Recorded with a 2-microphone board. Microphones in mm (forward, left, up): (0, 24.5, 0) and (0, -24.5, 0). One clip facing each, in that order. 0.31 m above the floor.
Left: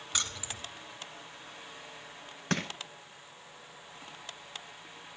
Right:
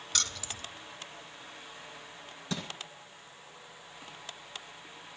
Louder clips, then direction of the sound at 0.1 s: Even; 15° left (ahead or behind).